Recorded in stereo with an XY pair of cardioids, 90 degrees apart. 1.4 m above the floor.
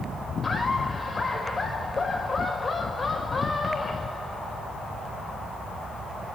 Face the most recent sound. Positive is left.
turn(degrees=35)